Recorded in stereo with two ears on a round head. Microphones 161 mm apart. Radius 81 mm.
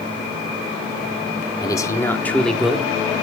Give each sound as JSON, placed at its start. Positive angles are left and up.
{"t": 1.6, "sound": "a man speaking", "side_deg": 25, "distance_m": 1.6}